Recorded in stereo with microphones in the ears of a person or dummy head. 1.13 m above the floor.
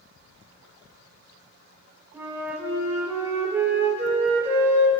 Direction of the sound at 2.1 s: 5° right (ahead or behind).